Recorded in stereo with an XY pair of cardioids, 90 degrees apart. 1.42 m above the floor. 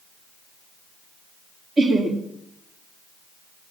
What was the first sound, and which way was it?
Laughter, 50° right.